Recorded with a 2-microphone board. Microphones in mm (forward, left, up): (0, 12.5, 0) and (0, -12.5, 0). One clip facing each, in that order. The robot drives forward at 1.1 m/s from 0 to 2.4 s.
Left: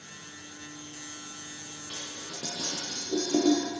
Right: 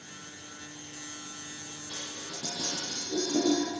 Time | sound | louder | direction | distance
1.9 | dishes clattering | even | 55° left (ahead or behind) | 8.5 m